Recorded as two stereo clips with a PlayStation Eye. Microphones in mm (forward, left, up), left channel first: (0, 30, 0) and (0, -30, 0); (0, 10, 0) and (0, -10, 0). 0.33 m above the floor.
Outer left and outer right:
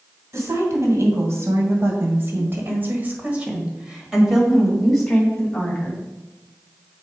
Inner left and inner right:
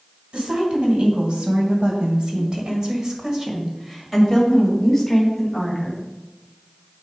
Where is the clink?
I don't hear a clink.